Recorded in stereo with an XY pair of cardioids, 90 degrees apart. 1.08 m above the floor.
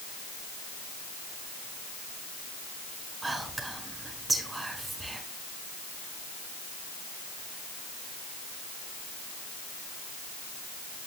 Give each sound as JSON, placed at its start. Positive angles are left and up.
{"t": 3.2, "sound": "whispering", "azimuth_deg": -25, "distance_m": 4.5}